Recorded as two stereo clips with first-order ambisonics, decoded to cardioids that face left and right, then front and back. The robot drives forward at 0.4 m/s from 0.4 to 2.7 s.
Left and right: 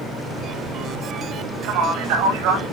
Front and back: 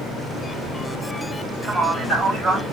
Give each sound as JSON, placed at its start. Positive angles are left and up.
{"t": 1.6, "sound": "a man speaking", "azimuth_deg": -90, "distance_m": 4.0}